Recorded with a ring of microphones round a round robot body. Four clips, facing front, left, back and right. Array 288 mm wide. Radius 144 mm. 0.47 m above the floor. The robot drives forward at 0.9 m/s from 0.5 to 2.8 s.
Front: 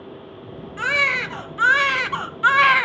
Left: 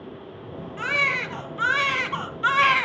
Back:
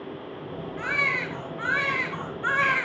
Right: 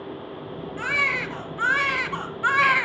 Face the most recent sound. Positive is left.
turn(degrees=10)